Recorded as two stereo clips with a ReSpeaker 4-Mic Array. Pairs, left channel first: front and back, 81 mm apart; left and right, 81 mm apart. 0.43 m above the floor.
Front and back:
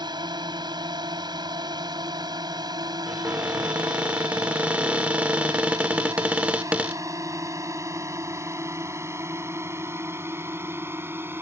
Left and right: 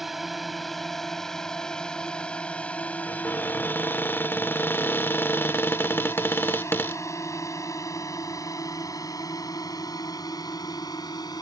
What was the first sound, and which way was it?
A drone, straight behind.